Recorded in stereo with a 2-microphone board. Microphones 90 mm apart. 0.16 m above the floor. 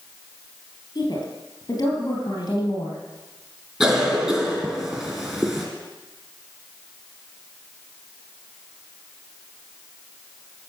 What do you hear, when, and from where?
0.9 s a woman speaking: 50° left (ahead or behind), 4 m
3.8 s a cough: 15° right (ahead or behind), 2.5 m